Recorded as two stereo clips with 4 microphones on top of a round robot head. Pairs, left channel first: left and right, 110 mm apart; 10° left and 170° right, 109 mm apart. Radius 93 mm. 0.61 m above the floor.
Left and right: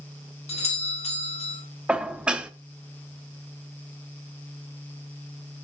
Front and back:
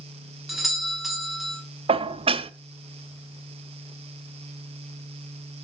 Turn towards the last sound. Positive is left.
turn(degrees=-170)